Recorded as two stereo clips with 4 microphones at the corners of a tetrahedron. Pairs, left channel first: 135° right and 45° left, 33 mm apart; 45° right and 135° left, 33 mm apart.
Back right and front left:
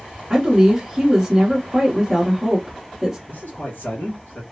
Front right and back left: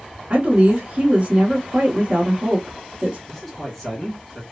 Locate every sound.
0.3 s a woman speaking: 115° left, 0.9 m
3.3 s a man speaking: 125° right, 1.7 m